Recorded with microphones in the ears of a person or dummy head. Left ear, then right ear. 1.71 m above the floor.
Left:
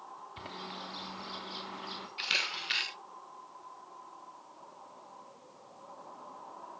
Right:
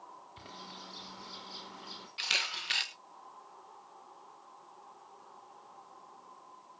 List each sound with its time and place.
0.4 s a bird: 20° left (ahead or behind), 3 m
2.2 s a camera shutter: 10° right (ahead or behind), 1.2 m